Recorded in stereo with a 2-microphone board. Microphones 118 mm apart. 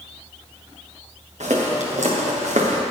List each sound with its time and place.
1.4 s footsteps: 80° right, 3 m; by 2.8 s 85° right, 1.9 m